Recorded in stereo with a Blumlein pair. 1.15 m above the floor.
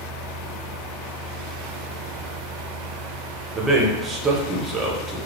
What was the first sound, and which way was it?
A fan, 25° right.